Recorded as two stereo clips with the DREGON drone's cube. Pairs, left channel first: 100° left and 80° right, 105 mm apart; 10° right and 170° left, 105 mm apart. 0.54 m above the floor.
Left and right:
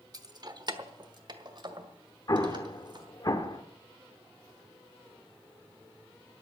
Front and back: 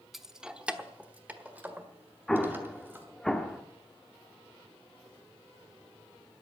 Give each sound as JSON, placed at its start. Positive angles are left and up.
{"t": 0.1, "sound": "keys jangling", "azimuth_deg": -105, "distance_m": 0.8}
{"t": 2.3, "sound": "an explosion", "azimuth_deg": 75, "distance_m": 1.3}